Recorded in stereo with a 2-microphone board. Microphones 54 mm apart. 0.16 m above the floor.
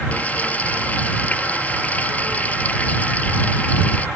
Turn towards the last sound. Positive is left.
turn(degrees=30)  # may be behind; listen again after turning